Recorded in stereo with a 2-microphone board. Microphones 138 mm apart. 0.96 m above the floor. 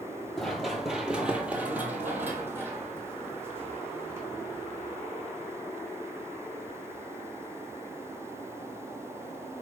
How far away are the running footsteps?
About 1.0 m.